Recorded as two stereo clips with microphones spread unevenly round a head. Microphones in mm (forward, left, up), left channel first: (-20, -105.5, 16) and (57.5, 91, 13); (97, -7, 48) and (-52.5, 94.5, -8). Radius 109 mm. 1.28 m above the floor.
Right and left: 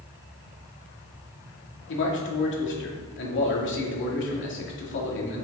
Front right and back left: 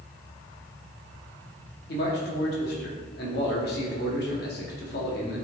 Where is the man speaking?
80° right, 2.5 m.